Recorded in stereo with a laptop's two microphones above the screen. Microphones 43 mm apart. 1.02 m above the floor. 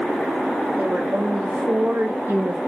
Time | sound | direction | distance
0.8 | a woman speaking | 30° right (ahead or behind) | 1.9 m